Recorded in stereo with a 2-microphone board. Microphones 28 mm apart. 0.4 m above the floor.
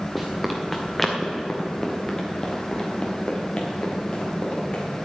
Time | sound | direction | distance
0.1 | running footsteps | centre (ahead or behind) | 2 m